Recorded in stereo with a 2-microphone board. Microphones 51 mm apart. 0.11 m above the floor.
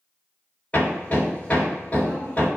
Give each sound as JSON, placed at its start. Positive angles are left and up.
{"t": 0.7, "sound": "hammering", "side_deg": 25, "distance_m": 1.9}